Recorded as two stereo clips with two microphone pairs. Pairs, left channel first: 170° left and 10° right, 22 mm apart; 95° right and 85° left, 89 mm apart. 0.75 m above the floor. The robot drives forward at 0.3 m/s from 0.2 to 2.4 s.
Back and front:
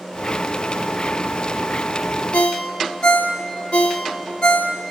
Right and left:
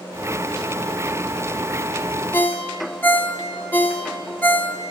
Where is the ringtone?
165° right, 0.7 m.